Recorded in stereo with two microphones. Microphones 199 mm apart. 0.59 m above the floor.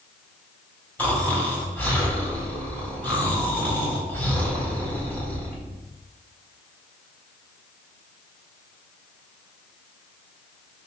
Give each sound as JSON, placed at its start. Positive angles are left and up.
{"t": 1.0, "sound": "snoring", "side_deg": 5, "distance_m": 4.0}